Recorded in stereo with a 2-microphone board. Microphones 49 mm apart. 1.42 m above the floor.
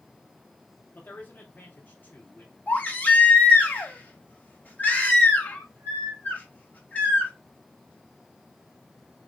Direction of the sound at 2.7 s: 35° left (ahead or behind).